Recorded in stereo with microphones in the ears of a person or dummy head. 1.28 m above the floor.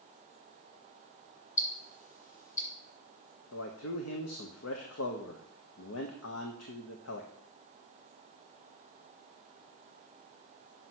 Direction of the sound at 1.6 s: 10° left (ahead or behind).